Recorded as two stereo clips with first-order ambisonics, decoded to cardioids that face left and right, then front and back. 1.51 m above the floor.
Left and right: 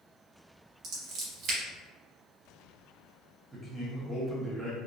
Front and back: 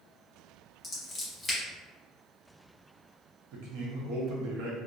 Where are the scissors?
70° right, 1.1 m.